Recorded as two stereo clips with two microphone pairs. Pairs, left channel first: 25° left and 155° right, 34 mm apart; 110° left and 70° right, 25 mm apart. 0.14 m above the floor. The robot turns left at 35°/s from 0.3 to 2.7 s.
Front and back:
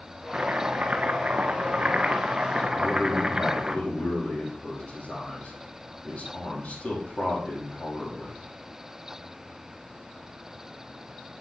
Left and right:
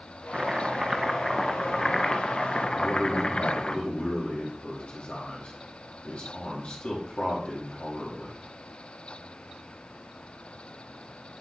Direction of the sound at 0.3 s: 130° right.